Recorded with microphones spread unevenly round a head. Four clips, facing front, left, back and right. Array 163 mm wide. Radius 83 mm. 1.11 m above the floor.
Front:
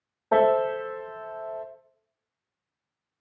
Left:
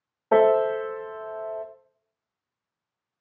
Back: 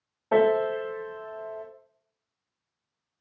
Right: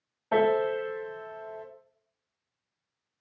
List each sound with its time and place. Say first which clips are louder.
0.3 s a piano: left 6 dB, front 1 dB; 75° left, 0.6 m